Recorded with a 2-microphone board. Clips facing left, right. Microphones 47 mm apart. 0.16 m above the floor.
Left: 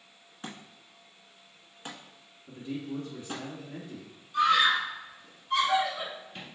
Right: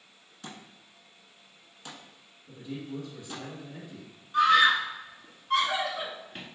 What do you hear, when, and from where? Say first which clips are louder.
0.4 s a thud: left 2 dB; 30° left (ahead or behind), 1.0 m
2.5 s a man speaking: left 2 dB; 30° left (ahead or behind), 1.3 m
4.3 s a scream: right 3 dB; 30° right (ahead or behind), 1.8 m